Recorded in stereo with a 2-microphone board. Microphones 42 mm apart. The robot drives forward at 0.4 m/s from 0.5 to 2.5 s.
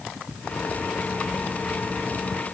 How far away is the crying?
I don't hear crying.